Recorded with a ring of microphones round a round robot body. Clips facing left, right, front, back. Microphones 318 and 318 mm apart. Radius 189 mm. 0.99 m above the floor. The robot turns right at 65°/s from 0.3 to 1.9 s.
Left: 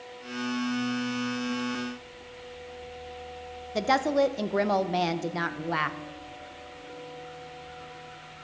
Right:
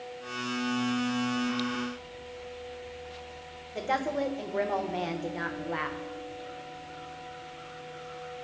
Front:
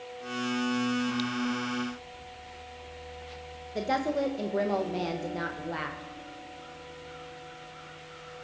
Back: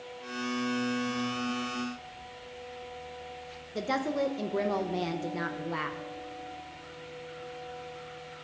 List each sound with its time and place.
3.8 s a woman speaking: 100° left, 0.9 m